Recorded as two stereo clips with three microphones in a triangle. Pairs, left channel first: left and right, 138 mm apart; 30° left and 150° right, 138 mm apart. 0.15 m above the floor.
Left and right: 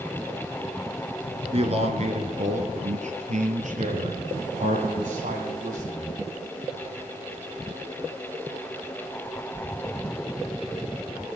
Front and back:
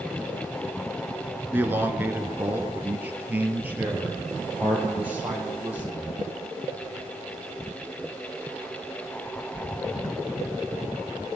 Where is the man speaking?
80° right, 1.5 m; by 6.1 s 70° right, 4 m.